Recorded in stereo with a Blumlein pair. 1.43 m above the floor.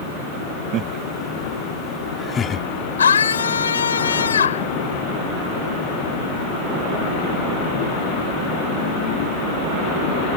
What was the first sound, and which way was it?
Laughter, 30° right.